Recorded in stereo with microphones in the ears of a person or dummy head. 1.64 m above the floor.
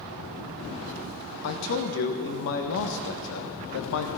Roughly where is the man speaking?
Left.